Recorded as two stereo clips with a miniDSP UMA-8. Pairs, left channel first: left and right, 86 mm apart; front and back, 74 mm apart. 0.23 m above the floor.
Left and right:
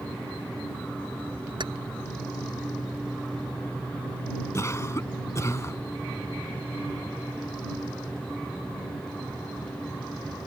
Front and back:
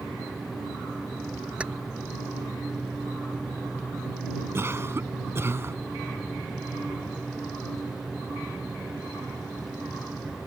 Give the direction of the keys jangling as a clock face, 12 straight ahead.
4 o'clock.